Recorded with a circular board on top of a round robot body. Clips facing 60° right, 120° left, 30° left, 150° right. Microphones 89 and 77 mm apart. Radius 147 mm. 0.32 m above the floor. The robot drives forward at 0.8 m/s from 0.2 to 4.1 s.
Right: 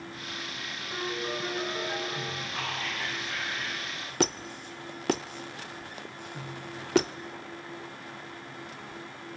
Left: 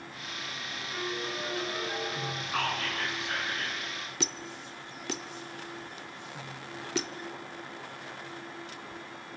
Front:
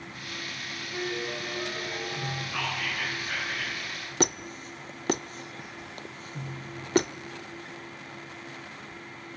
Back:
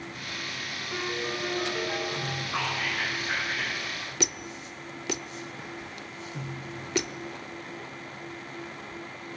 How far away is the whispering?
About 5 m.